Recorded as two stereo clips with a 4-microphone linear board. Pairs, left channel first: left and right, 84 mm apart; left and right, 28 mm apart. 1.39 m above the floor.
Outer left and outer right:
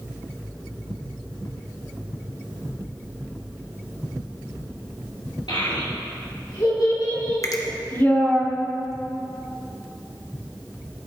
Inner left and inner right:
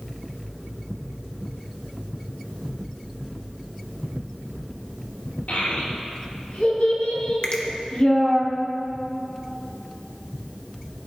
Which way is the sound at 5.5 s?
85° left.